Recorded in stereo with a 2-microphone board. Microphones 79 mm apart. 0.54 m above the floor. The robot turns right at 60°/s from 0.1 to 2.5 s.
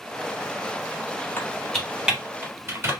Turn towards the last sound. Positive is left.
turn(degrees=-30)  # may be behind; listen again after turning